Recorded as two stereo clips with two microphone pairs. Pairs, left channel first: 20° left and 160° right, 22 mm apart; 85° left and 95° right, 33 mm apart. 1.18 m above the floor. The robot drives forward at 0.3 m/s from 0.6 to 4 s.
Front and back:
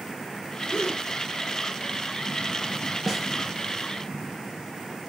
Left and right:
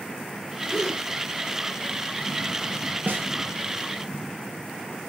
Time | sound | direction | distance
0.7 | a gasp | straight ahead | 1.4 m
3.1 | a snare drum | 80° right | 0.8 m